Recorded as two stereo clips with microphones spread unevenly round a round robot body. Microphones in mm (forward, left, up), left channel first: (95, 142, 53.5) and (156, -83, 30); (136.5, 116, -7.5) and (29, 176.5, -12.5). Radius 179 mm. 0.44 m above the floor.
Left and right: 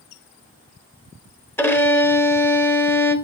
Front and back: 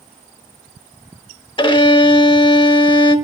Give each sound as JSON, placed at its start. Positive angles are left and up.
{"t": 1.6, "sound": "a violin", "azimuth_deg": 20, "distance_m": 1.0}